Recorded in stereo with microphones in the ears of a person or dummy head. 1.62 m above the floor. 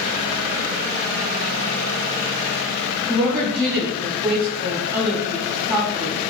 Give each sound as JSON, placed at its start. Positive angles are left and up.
{"t": 3.1, "sound": "a woman speaking", "side_deg": -25, "distance_m": 2.0}